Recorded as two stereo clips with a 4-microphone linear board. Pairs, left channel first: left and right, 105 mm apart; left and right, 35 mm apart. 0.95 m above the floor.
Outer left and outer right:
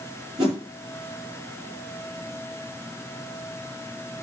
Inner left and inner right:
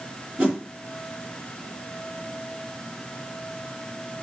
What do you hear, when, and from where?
0.4 s a whoosh: 45° right (ahead or behind), 7 m